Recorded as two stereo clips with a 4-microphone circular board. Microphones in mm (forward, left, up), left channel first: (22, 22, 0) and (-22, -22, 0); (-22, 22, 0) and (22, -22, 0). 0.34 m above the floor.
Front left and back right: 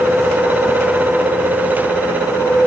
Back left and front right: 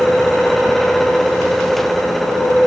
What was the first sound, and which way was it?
Only background noise.